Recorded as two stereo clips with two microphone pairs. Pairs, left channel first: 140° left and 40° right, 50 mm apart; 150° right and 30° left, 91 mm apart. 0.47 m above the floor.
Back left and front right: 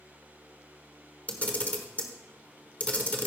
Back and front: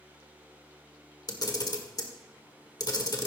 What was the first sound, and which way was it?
A camera shutter, 170° right.